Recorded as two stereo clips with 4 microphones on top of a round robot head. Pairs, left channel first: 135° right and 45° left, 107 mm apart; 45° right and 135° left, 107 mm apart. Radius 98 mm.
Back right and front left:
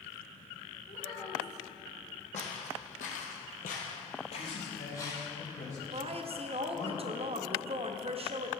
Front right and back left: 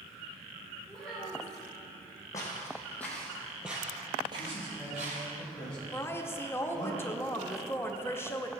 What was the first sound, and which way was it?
A child speaking, 130° right.